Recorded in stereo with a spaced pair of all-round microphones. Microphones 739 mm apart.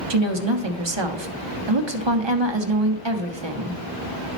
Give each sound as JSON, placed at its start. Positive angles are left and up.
{"t": 0.1, "sound": "a woman speaking", "side_deg": -40, "distance_m": 0.7}